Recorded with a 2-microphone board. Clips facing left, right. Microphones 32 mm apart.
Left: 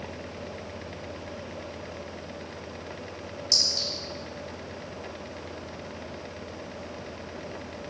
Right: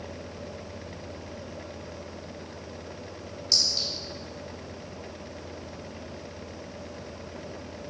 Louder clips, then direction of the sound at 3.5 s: Even; 15° right (ahead or behind).